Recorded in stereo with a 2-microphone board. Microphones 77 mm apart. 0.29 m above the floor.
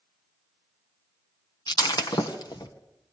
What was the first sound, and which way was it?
Breaking glass, 70° left (ahead or behind).